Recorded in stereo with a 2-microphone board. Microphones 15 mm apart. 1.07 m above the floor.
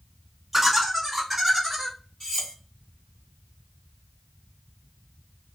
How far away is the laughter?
About 0.9 m.